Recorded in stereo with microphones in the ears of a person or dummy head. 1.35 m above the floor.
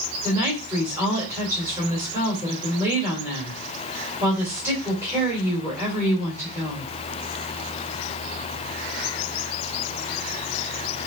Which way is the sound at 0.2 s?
15° right (ahead or behind).